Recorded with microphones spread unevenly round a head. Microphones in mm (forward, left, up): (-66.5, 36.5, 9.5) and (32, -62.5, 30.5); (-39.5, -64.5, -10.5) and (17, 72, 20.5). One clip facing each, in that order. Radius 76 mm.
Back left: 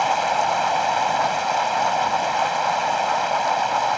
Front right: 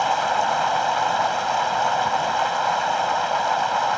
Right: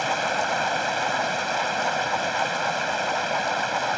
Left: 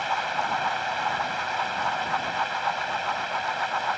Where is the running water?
145° right.